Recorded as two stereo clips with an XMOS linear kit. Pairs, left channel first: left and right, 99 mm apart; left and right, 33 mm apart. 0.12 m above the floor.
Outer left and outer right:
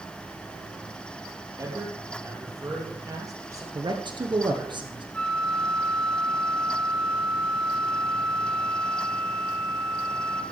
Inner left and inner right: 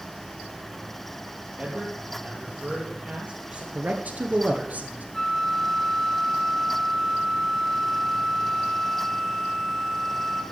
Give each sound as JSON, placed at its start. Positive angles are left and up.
{"t": 1.6, "sound": "a man speaking", "side_deg": -35, "distance_m": 3.5}
{"t": 3.8, "sound": "a man speaking", "side_deg": -50, "distance_m": 2.0}
{"t": 5.1, "sound": "a flute", "side_deg": 10, "distance_m": 1.2}